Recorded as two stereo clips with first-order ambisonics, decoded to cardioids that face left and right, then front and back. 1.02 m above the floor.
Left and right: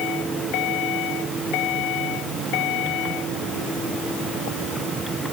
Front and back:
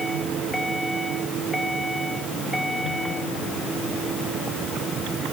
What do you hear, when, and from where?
Only background noise.